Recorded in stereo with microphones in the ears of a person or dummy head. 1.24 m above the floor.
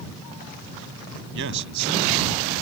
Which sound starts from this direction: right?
A man speaking, at 1.4 s.